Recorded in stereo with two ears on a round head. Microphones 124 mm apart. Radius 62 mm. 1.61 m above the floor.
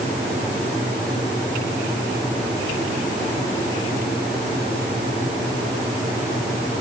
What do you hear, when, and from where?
Only background noise.